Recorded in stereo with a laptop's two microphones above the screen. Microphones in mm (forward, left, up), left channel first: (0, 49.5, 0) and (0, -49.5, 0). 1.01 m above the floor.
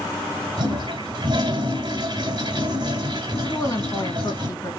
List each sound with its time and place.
0.6 s a toilet flushing: 45° right (ahead or behind), 2 m
3.5 s a woman speaking: 40° left (ahead or behind), 1.5 m